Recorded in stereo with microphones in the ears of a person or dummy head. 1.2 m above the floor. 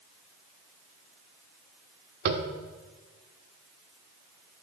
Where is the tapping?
60° right (ahead or behind), 1.5 m.